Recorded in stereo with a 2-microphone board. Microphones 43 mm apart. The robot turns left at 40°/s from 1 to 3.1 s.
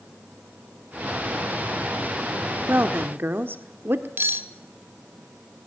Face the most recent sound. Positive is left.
turn(degrees=-60)  # may be behind; listen again after turning